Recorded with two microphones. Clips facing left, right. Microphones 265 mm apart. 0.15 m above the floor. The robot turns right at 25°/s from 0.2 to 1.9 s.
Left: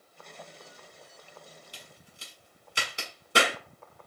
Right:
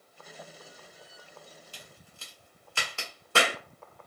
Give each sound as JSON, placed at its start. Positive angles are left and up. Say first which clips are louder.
{"t": 1.7, "sound": "a crack", "louder": "even", "side_deg": 20, "distance_m": 1.1}